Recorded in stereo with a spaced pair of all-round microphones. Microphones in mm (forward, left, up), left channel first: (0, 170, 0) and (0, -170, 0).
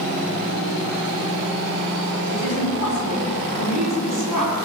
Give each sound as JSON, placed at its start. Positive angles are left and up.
{"t": 2.3, "sound": "a woman speaking", "side_deg": -65, "distance_m": 4.5}